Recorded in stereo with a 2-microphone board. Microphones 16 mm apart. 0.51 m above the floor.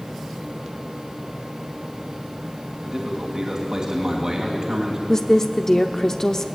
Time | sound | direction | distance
2.8 | a man speaking | 55° right (ahead or behind) | 3 m
5.1 | a woman speaking | 35° left (ahead or behind) | 0.8 m